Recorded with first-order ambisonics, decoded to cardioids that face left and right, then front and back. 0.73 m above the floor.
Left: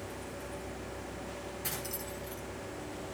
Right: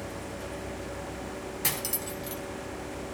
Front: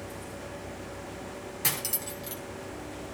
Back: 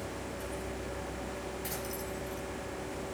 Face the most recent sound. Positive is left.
turn(degrees=-45)